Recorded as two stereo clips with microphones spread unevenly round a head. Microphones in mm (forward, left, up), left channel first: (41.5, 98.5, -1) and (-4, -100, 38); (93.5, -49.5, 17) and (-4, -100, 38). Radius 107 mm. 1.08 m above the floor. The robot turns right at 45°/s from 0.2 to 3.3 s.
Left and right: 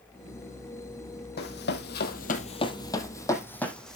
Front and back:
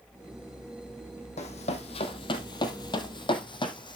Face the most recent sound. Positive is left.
turn(degrees=-15)